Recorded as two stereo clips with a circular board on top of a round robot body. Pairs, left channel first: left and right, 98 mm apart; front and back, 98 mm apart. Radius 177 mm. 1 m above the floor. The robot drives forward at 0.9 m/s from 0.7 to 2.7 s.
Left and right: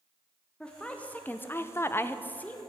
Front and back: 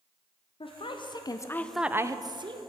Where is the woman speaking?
10° left, 1.1 m; by 2.6 s 165° left, 1.0 m.